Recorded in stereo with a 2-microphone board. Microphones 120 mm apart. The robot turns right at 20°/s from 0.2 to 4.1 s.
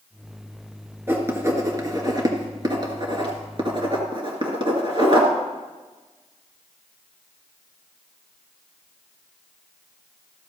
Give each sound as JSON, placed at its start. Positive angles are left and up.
{"t": 1.1, "sound": "writing", "side_deg": -20, "distance_m": 1.8}